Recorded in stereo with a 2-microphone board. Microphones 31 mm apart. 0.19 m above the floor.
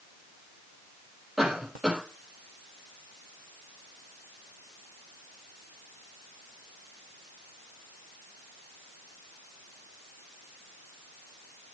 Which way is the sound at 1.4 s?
15° right (ahead or behind).